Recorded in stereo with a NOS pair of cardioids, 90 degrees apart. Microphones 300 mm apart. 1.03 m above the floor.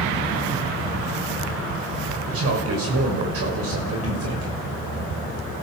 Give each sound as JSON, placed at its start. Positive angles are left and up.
{"t": 2.3, "sound": "a man speaking", "azimuth_deg": -50, "distance_m": 6.0}